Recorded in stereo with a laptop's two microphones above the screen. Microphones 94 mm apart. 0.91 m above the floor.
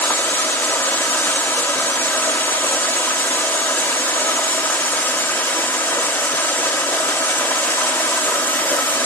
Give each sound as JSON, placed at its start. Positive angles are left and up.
{"t": 0.0, "sound": "running water", "side_deg": 20, "distance_m": 1.9}